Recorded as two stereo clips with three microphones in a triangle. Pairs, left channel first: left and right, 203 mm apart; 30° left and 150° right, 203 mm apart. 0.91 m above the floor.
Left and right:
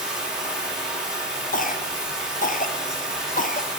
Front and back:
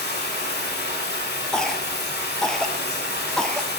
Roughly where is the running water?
Ahead.